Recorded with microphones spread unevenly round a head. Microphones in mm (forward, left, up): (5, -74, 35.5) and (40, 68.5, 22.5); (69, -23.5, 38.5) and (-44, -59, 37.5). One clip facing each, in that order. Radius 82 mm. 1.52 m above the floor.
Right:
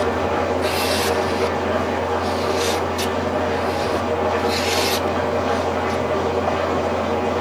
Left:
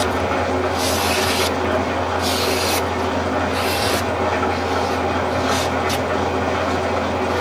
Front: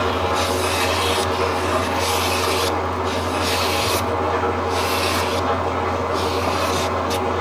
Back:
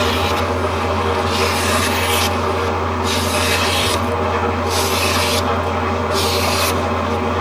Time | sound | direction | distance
0.0 | an engine running | 115° left | 3.5 m